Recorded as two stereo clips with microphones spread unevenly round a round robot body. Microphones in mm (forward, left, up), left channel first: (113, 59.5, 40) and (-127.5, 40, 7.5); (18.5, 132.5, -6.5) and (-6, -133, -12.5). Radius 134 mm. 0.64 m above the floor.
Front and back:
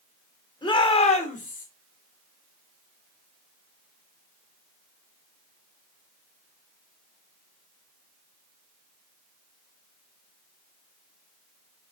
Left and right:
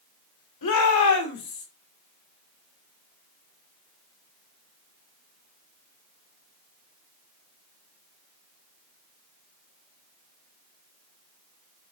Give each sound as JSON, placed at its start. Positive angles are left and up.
{"t": 0.6, "sound": "a shout", "azimuth_deg": 80, "distance_m": 2.5}